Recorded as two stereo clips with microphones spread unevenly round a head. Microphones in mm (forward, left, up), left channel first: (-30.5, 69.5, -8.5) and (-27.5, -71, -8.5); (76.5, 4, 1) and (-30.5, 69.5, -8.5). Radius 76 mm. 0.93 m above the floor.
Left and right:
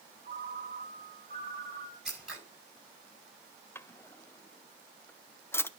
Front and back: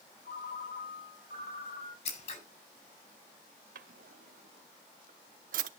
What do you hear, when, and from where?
0.2 s a ringtone: 45° right, 4 m
2.0 s scissors: straight ahead, 5.5 m
3.8 s a drawer: 165° left, 0.8 m